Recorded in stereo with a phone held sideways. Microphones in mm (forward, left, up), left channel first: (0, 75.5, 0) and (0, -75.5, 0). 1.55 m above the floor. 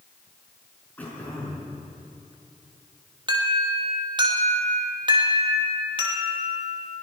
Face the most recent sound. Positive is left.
turn(degrees=-30)  # may be behind; listen again after turning